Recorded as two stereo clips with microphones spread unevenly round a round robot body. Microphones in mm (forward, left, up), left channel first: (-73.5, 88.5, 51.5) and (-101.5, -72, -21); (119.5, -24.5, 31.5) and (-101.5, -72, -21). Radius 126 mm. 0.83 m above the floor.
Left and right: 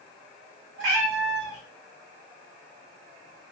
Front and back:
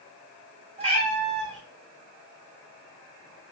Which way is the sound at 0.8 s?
100° right.